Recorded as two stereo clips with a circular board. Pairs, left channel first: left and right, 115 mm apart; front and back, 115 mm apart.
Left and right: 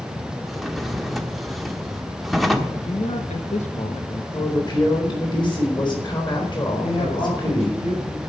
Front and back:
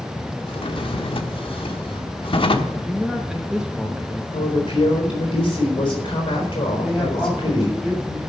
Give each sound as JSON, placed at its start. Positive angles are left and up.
{"t": 0.5, "sound": "a drawer", "azimuth_deg": 0, "distance_m": 1.2}
{"t": 2.8, "sound": "a man speaking", "azimuth_deg": 95, "distance_m": 1.2}
{"t": 4.3, "sound": "a woman speaking", "azimuth_deg": 40, "distance_m": 4.0}
{"t": 6.8, "sound": "a woman speaking", "azimuth_deg": 90, "distance_m": 7.0}